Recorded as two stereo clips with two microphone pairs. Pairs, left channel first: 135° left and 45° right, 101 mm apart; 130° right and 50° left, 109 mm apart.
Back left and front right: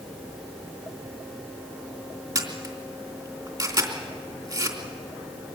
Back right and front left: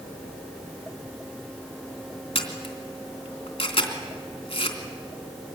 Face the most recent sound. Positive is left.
turn(degrees=-95)